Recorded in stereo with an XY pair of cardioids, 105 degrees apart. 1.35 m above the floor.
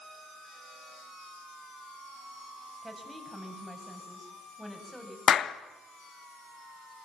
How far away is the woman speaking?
About 8 m.